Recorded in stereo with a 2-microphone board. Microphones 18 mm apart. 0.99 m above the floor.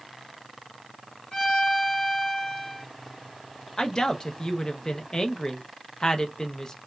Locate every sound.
1.3 s a violin: 50° left (ahead or behind), 1.7 m
3.8 s a woman speaking: 35° left (ahead or behind), 0.6 m